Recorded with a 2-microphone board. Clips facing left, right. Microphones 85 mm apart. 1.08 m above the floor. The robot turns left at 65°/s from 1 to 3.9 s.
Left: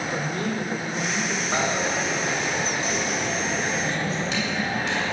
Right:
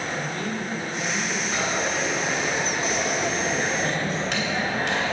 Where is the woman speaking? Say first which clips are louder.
Left 2 dB; 30° left (ahead or behind), 3 m; by 1.4 s centre (ahead or behind), 3 m.